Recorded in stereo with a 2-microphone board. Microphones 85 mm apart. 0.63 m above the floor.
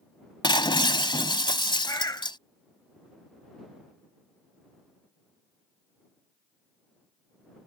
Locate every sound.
0.4 s breaking glass: 70° left (ahead or behind)
1.9 s a bird: 45° left (ahead or behind)